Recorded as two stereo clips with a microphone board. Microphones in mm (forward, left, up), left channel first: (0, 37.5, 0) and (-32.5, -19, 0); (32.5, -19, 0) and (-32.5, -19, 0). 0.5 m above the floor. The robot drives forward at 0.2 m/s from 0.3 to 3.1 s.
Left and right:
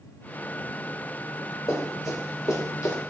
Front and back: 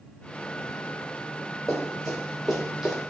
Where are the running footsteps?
85° left, 1.6 m; by 3.0 s 95° left, 1.0 m.